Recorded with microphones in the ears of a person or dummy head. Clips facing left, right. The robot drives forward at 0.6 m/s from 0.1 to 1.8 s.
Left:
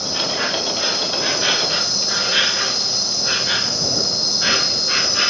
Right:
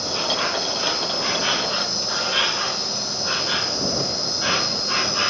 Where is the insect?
15° left (ahead or behind), 3 m; by 5.3 s 25° left (ahead or behind), 1.9 m.